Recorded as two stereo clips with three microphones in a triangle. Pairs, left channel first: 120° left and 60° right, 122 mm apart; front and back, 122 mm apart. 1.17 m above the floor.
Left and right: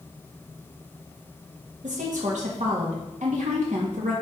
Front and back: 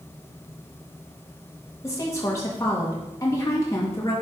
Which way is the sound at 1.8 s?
65° right.